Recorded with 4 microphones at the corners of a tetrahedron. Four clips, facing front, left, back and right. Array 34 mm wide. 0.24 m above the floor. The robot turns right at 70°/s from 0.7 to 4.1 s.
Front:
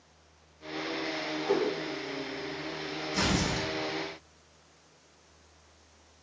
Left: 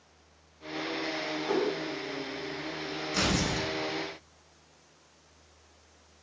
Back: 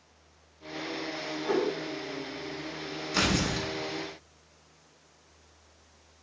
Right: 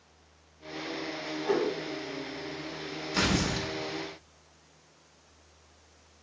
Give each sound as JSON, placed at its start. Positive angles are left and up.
{"t": 1.4, "sound": "a whoosh", "azimuth_deg": -125, "distance_m": 1.5}
{"t": 3.1, "sound": "tearing paper", "azimuth_deg": -165, "distance_m": 1.1}